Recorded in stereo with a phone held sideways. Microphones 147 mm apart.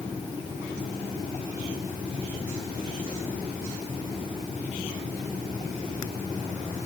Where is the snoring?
No snoring in this recording.